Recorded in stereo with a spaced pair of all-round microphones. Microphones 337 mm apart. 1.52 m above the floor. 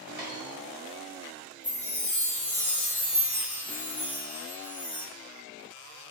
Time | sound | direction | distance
0.2 | a dropped coin | 25° right (ahead or behind) | 1.3 m
1.6 | a chime | 65° left (ahead or behind) | 1.9 m